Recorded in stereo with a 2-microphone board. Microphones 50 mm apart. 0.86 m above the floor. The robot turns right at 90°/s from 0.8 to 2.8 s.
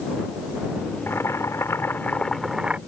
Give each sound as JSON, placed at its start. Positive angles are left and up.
{"t": 1.1, "sound": "boiling", "azimuth_deg": 55}